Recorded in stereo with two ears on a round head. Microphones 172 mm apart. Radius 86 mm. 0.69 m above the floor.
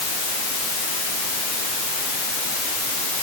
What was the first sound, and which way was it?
Only background noise.